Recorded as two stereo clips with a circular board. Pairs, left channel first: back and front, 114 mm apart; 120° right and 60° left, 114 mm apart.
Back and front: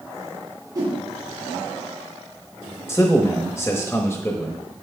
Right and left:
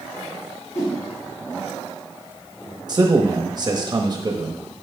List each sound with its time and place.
0.8 s a whoosh: 55° right, 3 m
2.9 s a man speaking: 115° left, 0.9 m